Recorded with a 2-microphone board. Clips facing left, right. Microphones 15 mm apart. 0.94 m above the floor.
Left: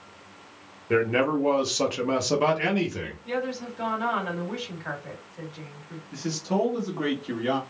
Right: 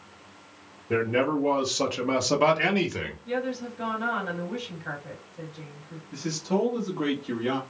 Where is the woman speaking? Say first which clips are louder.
Left 1 dB; 40° left (ahead or behind), 1.6 m.